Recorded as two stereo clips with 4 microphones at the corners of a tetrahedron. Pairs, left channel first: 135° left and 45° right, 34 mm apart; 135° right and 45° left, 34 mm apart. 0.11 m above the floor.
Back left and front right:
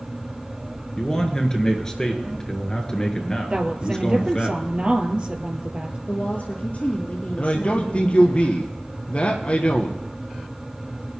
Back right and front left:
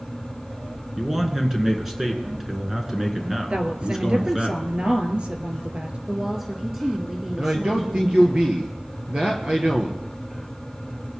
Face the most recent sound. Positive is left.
turn(degrees=95)